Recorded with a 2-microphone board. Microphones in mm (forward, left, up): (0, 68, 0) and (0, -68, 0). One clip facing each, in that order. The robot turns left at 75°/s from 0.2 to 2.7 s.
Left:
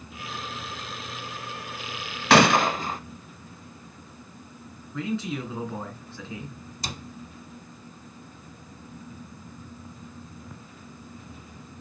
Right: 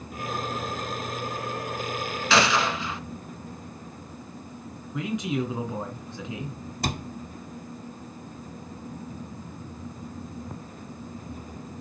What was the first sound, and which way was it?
A gunshot, 85° left.